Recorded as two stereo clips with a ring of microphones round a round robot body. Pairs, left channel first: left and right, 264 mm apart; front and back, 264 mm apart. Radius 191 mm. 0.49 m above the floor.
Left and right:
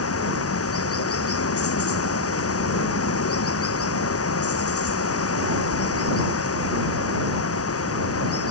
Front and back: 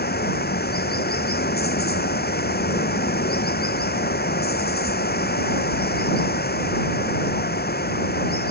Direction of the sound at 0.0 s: 55° left.